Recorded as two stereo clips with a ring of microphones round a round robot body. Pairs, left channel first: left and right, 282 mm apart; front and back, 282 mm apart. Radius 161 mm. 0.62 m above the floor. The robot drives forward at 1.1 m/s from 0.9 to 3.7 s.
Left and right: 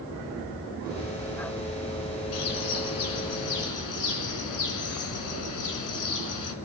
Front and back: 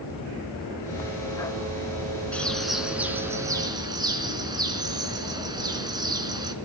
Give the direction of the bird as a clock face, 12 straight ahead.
9 o'clock.